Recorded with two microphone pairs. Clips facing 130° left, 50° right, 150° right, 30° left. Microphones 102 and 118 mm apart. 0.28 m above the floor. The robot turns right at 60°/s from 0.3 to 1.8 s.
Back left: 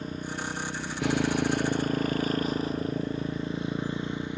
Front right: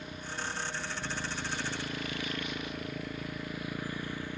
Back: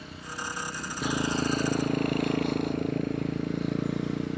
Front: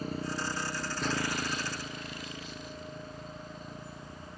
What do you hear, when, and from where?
0.0 s a motorcycle: 80° left; by 4.4 s 160° right